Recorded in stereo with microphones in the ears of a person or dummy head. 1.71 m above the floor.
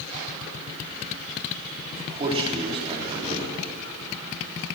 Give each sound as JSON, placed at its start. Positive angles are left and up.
{"t": 1.9, "sound": "a man speaking", "side_deg": -30, "distance_m": 5.0}